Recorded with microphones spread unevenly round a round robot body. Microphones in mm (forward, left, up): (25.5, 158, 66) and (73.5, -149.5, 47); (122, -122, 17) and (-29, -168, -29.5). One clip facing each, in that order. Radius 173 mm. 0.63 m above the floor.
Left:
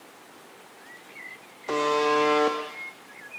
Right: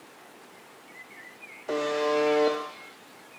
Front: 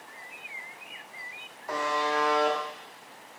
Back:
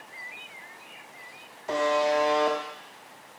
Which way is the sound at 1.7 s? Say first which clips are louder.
Left 2 dB, back 6 dB; 175° left.